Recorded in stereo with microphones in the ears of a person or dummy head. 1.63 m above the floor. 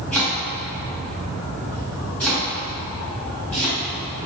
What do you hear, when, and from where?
0.1 s chopping: 5° left (ahead or behind), 2 m